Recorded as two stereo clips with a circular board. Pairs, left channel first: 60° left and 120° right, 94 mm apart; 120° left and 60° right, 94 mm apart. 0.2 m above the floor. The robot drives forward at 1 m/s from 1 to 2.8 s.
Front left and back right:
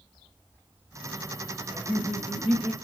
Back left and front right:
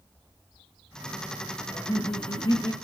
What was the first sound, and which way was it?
Laughter, 160° left.